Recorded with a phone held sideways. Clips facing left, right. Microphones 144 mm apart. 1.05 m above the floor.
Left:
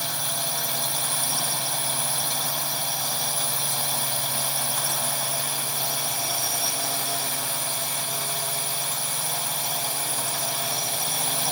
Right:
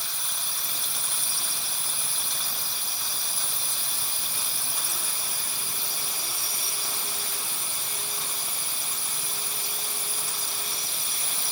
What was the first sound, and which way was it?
A drone, 75° left (ahead or behind).